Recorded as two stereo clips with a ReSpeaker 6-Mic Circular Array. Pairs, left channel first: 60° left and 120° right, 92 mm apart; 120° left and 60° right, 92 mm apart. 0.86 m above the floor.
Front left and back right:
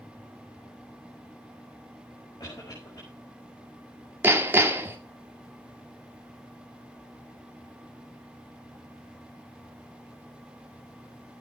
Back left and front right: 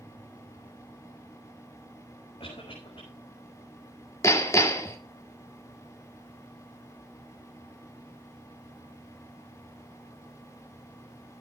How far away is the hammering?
About 2 m.